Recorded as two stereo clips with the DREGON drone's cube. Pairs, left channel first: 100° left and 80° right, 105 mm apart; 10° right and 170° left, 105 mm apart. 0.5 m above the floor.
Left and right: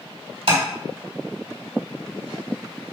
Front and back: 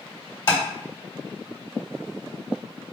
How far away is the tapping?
About 1.6 m.